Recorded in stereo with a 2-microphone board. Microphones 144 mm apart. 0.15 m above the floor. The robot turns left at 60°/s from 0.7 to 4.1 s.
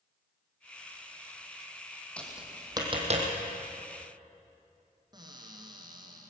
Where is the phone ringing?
No phone ringing in this recording.